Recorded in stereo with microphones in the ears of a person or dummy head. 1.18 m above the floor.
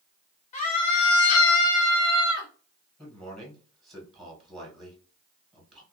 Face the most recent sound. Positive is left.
turn(degrees=5)  # may be behind; listen again after turning